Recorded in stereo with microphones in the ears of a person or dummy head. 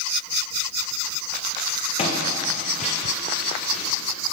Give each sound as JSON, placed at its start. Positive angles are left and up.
{"t": 2.0, "sound": "footsteps", "side_deg": 35, "distance_m": 5.0}